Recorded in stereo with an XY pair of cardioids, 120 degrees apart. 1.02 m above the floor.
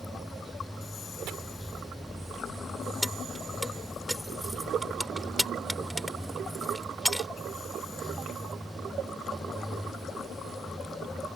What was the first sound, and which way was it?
Running water, straight ahead.